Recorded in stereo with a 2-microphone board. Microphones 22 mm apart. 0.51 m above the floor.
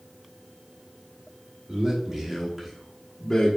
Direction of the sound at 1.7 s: 40° right (ahead or behind).